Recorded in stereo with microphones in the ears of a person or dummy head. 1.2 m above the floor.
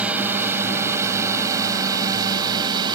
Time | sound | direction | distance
0.0 | a drone | 5° right (ahead or behind) | ?